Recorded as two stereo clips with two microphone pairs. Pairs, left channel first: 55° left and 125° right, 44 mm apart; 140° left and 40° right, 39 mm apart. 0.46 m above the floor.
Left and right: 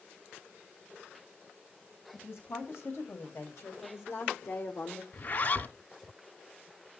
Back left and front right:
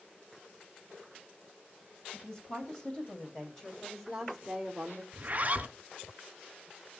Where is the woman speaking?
85° left, 4 m; by 5.0 s 40° left, 1.9 m.